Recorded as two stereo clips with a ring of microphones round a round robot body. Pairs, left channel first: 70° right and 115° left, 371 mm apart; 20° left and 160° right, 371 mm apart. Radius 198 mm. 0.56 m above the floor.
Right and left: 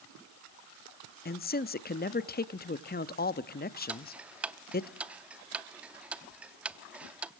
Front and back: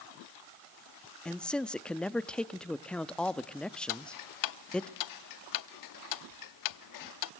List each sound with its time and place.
1.2 s a man speaking: 60° right, 0.6 m
3.9 s ticking: 25° left, 0.7 m